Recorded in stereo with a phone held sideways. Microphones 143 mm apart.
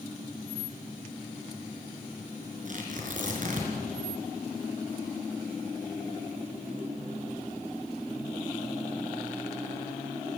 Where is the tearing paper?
60° right (ahead or behind), 5 m.